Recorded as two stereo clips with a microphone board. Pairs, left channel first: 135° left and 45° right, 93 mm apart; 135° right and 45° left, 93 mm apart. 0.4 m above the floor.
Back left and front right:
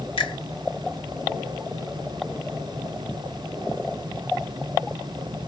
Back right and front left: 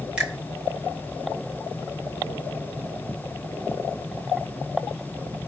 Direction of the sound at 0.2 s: 125° left.